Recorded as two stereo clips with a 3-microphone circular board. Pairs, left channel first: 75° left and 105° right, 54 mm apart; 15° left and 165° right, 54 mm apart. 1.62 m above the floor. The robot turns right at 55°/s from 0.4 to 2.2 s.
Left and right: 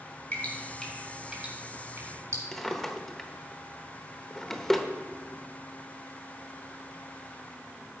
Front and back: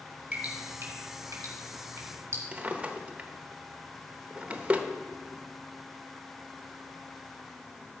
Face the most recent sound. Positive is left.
turn(degrees=155)